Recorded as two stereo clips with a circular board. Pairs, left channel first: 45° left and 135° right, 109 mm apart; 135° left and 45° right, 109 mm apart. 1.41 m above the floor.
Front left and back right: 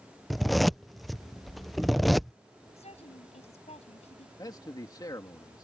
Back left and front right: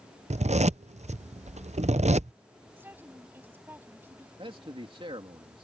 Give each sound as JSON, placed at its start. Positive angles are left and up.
{"t": 0.3, "sound": "a zipper", "azimuth_deg": -45}
{"t": 2.8, "sound": "a woman speaking", "azimuth_deg": 30}
{"t": 4.4, "sound": "a man speaking", "azimuth_deg": -10}